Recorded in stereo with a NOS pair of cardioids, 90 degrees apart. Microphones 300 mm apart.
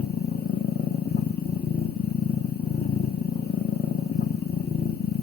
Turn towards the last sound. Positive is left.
turn(degrees=30)